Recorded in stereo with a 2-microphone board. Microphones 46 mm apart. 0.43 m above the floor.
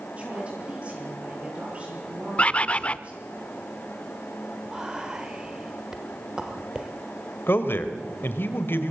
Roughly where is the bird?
Left.